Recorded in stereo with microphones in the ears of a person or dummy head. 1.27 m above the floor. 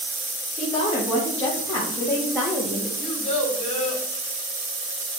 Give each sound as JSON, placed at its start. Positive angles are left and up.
{"t": 0.6, "sound": "a woman speaking", "side_deg": 25, "distance_m": 3.0}
{"t": 3.0, "sound": "a child speaking", "side_deg": 35, "distance_m": 3.5}